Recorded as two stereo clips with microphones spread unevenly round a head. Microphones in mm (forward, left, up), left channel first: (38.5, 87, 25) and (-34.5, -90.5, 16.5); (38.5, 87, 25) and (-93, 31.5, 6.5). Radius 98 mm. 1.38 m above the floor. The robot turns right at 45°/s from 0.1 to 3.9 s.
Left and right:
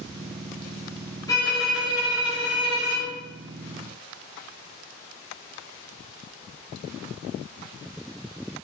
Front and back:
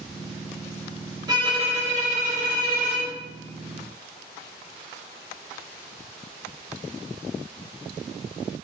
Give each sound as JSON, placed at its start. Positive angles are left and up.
{"t": 1.3, "sound": "a violin", "azimuth_deg": 140, "distance_m": 0.8}